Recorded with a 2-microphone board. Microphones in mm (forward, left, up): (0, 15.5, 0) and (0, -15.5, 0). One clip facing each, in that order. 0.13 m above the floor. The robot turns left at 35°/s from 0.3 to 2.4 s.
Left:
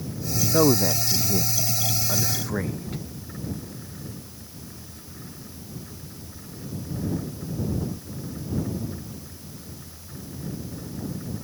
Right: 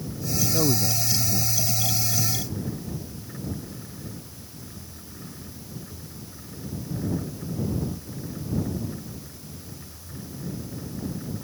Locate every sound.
0.5 s a man speaking: 145° left; by 3.0 s 80° left